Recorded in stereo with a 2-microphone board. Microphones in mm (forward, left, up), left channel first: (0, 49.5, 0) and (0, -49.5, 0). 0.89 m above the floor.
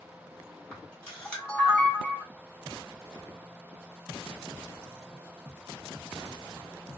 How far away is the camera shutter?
About 1.5 m.